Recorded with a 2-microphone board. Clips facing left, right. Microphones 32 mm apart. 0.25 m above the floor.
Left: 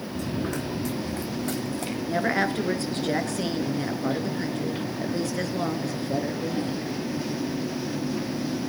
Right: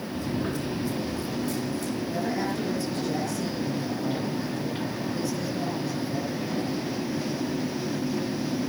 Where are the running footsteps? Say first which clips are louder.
Even; 85° left, 2.5 m; by 2.0 s 50° left (ahead or behind), 3.5 m.